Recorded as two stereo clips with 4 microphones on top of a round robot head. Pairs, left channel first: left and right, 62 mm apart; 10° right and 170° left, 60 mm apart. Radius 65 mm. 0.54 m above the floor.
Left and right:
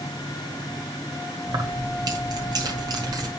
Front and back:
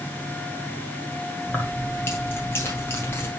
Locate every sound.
1.5 s keys jangling: 65° right, 1.8 m